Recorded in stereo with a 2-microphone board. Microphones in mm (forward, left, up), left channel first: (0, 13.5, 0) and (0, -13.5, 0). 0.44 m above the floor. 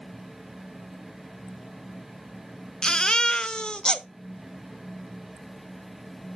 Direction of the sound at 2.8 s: 35° left (ahead or behind).